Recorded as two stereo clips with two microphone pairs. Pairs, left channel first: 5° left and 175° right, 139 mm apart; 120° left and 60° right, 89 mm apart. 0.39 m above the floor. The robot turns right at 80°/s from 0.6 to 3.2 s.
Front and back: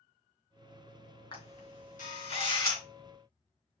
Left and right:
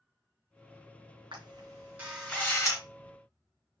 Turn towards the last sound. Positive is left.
turn(degrees=105)